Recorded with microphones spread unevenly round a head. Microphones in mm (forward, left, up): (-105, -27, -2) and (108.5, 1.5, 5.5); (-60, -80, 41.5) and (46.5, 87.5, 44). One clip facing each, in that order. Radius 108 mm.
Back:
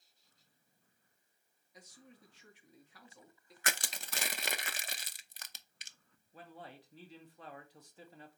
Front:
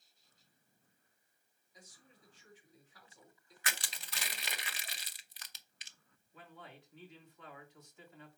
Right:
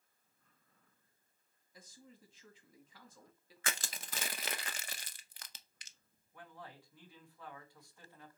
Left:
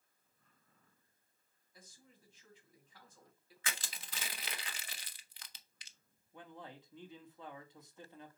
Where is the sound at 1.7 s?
140° right, 2.0 m.